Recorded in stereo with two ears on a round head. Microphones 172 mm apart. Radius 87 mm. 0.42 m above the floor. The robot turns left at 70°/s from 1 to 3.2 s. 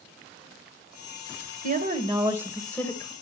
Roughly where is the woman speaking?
Right.